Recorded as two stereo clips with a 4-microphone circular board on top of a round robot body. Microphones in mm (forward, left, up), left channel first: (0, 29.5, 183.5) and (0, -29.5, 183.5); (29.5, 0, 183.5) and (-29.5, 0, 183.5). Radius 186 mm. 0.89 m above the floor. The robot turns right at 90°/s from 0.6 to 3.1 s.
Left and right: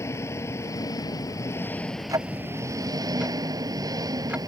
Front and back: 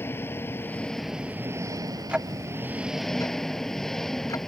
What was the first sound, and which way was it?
An engine running, 50° left.